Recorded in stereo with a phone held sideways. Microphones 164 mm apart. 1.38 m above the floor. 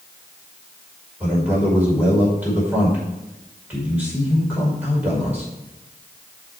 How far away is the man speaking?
About 5 m.